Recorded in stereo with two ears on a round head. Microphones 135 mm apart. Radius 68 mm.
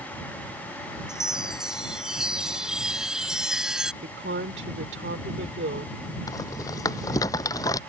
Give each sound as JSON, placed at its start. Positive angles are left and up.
{"t": 1.1, "sound": "a chime", "side_deg": -5}
{"t": 4.0, "sound": "a woman speaking", "side_deg": -80}
{"t": 6.3, "sound": "a rattle", "side_deg": 25}